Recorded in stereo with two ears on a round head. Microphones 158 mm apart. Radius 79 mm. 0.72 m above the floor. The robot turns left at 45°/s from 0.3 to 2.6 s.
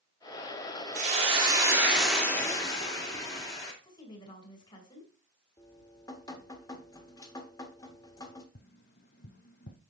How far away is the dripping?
About 1.4 m.